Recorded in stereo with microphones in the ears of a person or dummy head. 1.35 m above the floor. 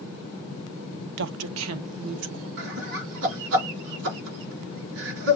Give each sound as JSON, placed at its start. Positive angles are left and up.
{"t": 1.2, "sound": "a woman speaking", "side_deg": -60, "distance_m": 0.5}
{"t": 2.6, "sound": "laughter", "side_deg": -70, "distance_m": 4.0}